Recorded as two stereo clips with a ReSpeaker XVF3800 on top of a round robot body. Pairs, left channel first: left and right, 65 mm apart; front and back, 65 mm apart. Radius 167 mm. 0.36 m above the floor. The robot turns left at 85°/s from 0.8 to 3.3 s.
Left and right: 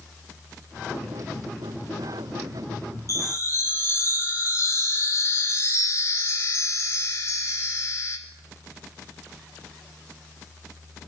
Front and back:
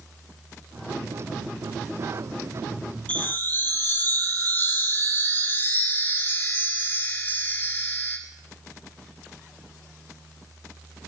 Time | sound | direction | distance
3.1 | a chime | 65° left | 2 m